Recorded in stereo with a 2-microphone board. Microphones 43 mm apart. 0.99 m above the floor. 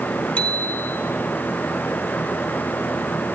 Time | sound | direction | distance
0.4 | a bicycle bell | 30° left (ahead or behind) | 2.5 m